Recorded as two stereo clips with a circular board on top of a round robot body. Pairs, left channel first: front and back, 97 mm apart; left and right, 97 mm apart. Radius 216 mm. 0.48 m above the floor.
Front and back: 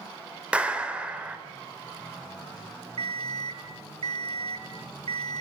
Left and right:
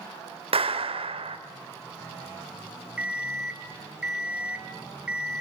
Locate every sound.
0.5 s a clap: 105° right, 2.5 m
3.0 s an alarm clock: 170° right, 2.0 m